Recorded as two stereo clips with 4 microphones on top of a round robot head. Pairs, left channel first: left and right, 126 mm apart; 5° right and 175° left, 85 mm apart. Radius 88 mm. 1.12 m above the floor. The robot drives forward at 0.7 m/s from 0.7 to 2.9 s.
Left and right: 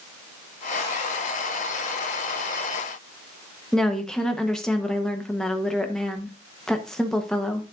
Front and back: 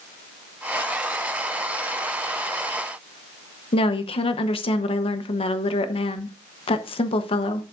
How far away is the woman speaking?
About 0.9 m.